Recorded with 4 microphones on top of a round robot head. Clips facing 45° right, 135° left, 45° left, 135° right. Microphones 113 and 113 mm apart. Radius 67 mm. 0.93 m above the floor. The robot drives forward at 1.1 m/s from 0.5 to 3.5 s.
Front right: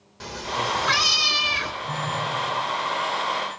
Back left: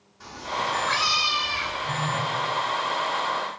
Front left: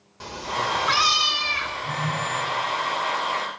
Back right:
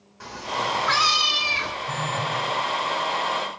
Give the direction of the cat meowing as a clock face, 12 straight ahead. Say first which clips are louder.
Front right 1 dB, even; 1 o'clock.